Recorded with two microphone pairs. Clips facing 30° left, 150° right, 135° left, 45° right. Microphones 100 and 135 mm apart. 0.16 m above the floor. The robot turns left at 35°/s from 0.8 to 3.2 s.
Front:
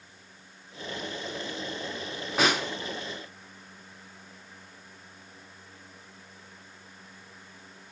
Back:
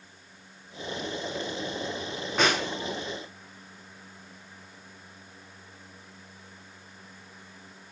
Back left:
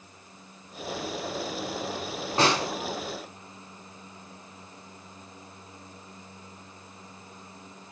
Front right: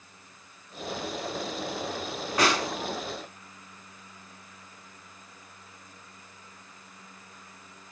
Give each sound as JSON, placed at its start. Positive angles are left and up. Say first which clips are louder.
{"t": 2.4, "sound": "a snare drum", "louder": "even, back left 1 dB", "azimuth_deg": 115, "distance_m": 0.9}